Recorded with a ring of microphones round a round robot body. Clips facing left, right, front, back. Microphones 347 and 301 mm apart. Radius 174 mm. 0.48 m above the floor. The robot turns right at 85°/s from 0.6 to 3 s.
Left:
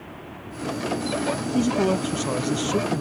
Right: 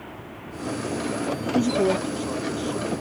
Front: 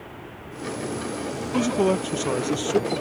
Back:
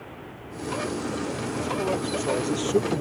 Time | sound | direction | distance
1.5 | a man speaking | straight ahead | ?